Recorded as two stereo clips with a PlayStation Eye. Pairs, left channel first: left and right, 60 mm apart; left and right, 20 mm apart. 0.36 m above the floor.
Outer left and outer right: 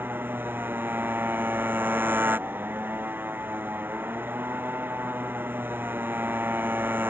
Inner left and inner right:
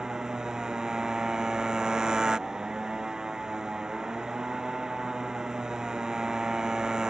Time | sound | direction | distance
0.0 | a motorcycle | 35° right (ahead or behind) | ?